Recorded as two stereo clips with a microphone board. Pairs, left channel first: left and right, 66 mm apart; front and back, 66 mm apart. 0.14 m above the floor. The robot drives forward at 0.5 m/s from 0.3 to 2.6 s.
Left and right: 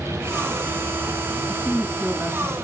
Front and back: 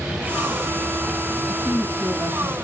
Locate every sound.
1.5 s a woman speaking: 150° right, 6 m